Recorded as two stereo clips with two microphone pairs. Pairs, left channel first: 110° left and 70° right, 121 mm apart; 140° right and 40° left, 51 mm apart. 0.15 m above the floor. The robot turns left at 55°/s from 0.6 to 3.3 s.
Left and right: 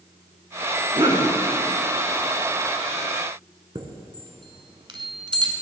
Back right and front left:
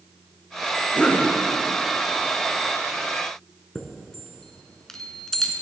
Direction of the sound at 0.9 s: 80° right.